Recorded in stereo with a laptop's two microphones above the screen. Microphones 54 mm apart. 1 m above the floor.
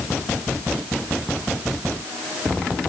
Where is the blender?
No blender in this recording.